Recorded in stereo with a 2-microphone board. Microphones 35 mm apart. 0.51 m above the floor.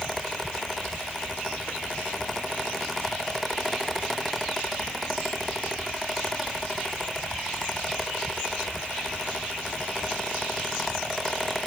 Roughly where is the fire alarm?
I don't hear a fire alarm.